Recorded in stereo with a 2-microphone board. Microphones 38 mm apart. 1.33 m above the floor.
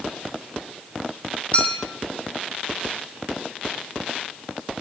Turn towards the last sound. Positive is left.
turn(degrees=40)  # may be behind; listen again after turning